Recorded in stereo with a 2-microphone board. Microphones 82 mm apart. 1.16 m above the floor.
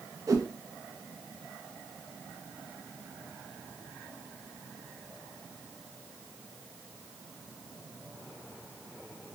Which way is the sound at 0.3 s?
40° right (ahead or behind).